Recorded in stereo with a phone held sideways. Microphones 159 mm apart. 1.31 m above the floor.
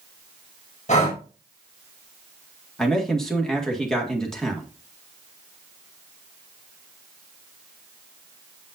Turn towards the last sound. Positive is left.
turn(degrees=5)  # may be behind; listen again after turning